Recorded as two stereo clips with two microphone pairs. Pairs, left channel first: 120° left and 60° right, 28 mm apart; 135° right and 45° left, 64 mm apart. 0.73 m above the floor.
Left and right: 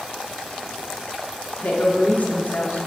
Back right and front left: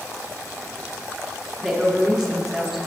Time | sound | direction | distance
1.6 | a woman speaking | 130° left | 1.2 m